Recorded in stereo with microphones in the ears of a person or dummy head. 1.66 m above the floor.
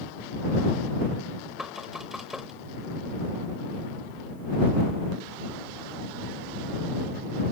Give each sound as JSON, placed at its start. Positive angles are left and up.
{"t": 1.6, "sound": "knocking", "side_deg": -5}